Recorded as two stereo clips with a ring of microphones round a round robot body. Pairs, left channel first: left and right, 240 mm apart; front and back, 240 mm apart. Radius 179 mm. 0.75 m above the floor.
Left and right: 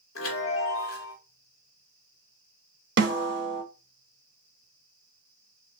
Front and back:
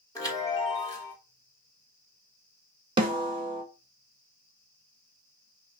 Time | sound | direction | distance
0.1 | a chime | 75° left | 2.5 m
3.0 | a snare drum | 115° right | 1.3 m